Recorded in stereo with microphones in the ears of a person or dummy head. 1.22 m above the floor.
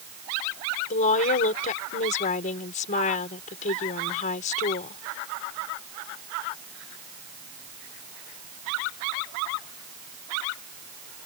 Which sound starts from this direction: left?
A woman speaking, at 0.9 s.